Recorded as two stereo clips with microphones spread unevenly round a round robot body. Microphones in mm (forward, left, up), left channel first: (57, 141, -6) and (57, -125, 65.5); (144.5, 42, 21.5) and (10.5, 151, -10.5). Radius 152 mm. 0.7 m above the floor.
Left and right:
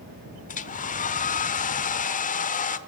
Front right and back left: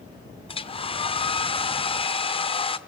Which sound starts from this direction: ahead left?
A hair dryer, at 0.5 s.